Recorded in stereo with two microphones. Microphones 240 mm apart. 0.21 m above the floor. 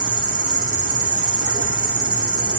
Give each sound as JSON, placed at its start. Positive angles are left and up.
{"t": 0.0, "sound": "an insect", "side_deg": -65, "distance_m": 1.5}